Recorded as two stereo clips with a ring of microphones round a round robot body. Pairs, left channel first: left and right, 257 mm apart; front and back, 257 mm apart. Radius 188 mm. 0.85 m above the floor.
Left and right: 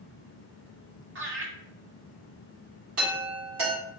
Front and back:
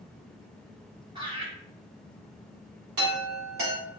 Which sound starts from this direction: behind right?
A chime, at 3.0 s.